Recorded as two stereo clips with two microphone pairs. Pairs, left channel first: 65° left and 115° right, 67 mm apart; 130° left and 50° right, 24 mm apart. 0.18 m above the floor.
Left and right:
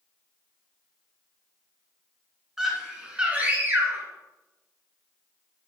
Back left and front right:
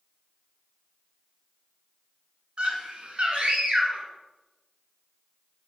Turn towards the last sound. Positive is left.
turn(degrees=-75)